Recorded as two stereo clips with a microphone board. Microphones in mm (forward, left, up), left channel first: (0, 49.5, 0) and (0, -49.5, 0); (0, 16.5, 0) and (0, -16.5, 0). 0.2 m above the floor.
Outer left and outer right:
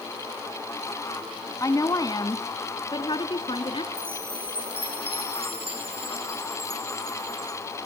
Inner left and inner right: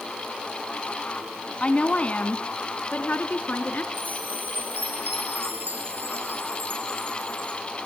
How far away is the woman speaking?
About 1.6 m.